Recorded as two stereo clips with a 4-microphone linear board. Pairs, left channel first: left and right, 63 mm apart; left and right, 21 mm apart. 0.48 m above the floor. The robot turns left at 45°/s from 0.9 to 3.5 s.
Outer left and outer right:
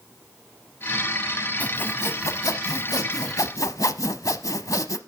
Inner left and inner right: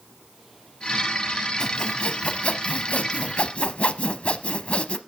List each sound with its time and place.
1.6 s sawing: 155° left, 0.7 m; by 5.0 s 65° left, 0.7 m